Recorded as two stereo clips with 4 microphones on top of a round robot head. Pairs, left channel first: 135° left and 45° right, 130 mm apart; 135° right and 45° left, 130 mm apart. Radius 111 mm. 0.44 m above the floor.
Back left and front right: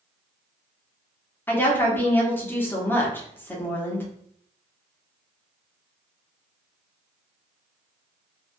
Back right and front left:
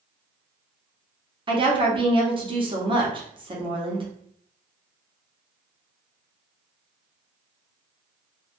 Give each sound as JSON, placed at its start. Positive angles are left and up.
{"t": 1.5, "sound": "a woman speaking", "azimuth_deg": 65, "distance_m": 0.9}